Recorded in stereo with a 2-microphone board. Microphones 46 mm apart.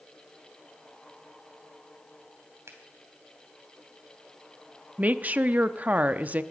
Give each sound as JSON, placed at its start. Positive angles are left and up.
{"t": 2.7, "sound": "a finger snap", "side_deg": -80, "distance_m": 3.0}
{"t": 5.0, "sound": "a woman speaking", "side_deg": -35, "distance_m": 0.7}